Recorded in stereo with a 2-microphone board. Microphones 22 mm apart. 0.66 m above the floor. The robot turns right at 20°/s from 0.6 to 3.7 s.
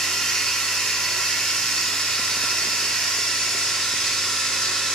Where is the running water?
70° left, 1.1 m; by 5.0 s 130° left, 1.1 m.